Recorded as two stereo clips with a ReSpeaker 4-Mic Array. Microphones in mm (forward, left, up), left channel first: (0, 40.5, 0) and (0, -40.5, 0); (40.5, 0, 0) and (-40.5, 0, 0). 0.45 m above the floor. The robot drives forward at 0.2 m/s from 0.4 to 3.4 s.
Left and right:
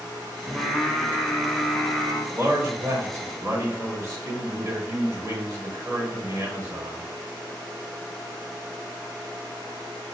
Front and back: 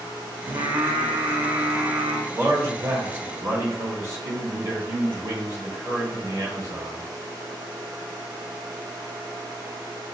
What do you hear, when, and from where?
0.5 s singing: straight behind, 0.8 m
2.3 s a man speaking: 130° right, 1.7 m; by 7.0 s 140° right, 1.8 m